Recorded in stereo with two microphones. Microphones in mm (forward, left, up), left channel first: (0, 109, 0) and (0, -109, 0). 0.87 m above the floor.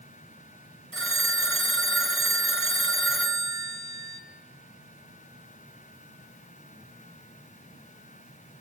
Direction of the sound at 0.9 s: 70° right (ahead or behind).